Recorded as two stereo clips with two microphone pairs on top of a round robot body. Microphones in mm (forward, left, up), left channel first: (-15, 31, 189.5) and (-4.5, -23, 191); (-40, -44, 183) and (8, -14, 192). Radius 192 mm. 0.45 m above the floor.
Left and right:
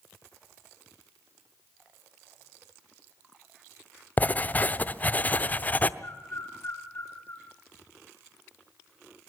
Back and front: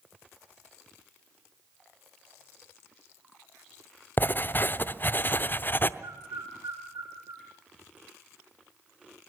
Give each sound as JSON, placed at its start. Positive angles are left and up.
{"t": 4.2, "sound": "writing", "azimuth_deg": 160, "distance_m": 0.9}
{"t": 6.0, "sound": "a bird", "azimuth_deg": 50, "distance_m": 5.5}